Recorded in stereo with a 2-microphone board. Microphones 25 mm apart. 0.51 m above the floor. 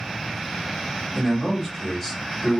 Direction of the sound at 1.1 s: 10° left (ahead or behind).